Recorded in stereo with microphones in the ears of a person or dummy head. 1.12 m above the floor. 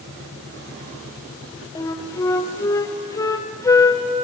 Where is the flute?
20° left (ahead or behind), 0.7 m.